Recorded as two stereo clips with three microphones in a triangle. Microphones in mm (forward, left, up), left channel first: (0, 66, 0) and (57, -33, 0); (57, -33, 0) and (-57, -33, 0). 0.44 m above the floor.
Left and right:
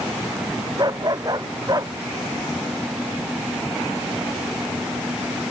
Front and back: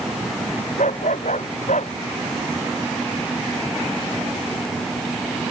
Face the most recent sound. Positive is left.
turn(degrees=0)